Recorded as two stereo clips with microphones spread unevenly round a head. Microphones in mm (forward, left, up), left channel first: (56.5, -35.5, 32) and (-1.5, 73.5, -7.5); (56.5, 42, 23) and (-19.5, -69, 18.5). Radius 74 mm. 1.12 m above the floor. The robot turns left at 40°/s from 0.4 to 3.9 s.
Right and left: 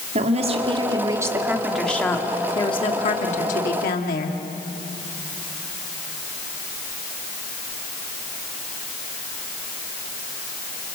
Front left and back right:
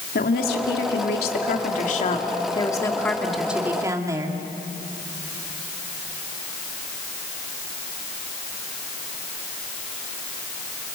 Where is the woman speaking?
85° left, 2 m; by 4.4 s 55° right, 2 m.